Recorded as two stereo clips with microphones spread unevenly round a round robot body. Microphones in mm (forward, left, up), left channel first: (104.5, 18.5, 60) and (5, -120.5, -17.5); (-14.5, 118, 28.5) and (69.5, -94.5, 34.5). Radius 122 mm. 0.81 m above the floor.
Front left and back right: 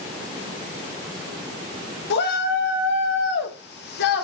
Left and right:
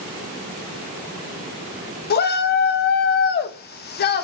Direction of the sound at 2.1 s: 95° left.